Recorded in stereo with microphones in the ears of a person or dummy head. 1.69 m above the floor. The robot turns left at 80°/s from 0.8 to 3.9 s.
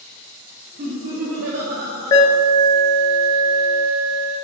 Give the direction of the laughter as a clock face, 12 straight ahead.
1 o'clock.